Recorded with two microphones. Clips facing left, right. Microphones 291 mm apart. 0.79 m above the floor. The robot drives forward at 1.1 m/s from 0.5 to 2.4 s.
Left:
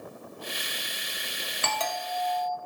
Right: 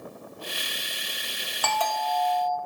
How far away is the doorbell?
About 1.2 m.